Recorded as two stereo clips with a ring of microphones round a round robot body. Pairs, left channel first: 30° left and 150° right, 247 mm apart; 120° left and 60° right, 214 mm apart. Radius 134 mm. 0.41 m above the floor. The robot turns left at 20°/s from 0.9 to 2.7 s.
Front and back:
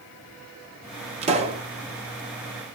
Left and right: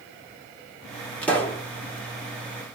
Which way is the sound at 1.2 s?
165° right.